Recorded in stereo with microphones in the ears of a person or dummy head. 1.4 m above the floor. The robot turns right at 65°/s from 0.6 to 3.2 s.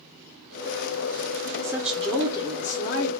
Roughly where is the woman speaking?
Ahead.